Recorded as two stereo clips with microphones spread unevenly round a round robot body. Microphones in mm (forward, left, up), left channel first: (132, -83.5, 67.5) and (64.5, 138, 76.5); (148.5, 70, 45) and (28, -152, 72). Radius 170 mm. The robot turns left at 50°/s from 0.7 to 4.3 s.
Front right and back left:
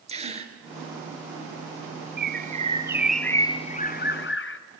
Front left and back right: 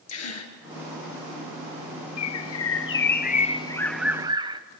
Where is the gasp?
45° left, 2.5 m.